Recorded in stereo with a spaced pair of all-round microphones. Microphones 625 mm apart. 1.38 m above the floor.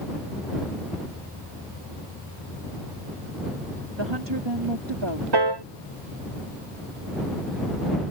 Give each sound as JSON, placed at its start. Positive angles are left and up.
{"t": 4.0, "sound": "a woman speaking", "side_deg": -40}
{"t": 5.3, "sound": "a piano", "side_deg": -40}